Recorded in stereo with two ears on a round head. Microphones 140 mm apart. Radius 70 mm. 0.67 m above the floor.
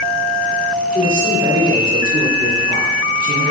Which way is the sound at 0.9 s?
55° right (ahead or behind).